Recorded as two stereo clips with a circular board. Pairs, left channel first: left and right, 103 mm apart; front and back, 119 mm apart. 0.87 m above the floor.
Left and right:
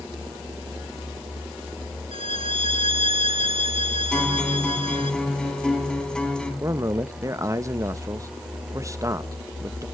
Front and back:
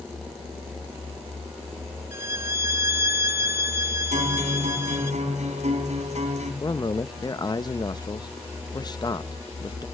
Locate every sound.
2.1 s a violin: 115° right, 0.8 m
4.1 s a guitar: 170° left, 4.5 m
6.6 s a man speaking: 40° right, 0.5 m